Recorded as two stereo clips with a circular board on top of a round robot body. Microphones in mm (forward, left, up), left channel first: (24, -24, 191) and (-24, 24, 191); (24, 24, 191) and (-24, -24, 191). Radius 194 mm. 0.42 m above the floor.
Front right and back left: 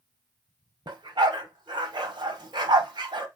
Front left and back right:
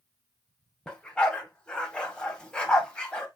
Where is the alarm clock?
No alarm clock in this recording.